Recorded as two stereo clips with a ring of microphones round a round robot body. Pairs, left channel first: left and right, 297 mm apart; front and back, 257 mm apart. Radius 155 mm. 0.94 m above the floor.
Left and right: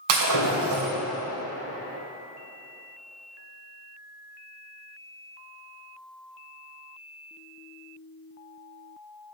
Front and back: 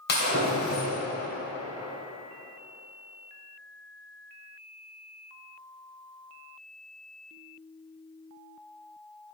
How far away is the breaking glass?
About 2.5 m.